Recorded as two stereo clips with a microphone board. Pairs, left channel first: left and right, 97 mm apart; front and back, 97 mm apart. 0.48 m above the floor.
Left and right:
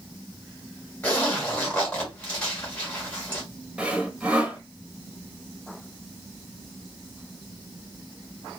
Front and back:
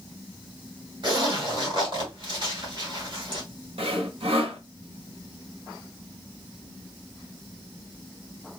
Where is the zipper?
165° left, 1.5 m.